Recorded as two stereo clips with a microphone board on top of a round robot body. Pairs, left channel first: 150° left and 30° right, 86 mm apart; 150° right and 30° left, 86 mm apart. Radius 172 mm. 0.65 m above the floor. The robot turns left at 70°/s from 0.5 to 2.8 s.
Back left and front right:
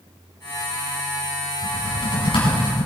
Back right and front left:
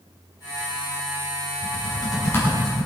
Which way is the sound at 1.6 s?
160° right.